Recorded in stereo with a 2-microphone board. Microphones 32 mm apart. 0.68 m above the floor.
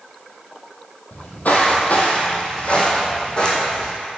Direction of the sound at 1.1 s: 65° left (ahead or behind).